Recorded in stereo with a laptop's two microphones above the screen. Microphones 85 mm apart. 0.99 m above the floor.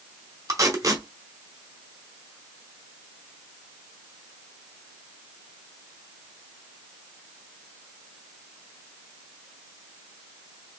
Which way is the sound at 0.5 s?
40° right (ahead or behind).